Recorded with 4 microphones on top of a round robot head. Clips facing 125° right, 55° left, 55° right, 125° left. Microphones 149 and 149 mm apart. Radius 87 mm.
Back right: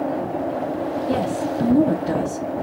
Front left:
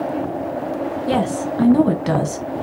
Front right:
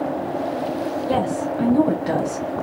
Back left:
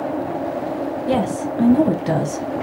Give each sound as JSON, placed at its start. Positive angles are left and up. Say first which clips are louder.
{"t": 1.1, "sound": "a woman speaking", "louder": "front left 4 dB, back left 2 dB", "azimuth_deg": 55, "distance_m": 1.1}